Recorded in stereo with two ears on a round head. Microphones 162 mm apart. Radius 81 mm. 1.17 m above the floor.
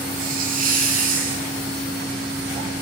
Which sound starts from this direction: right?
A hiss, at 0.2 s.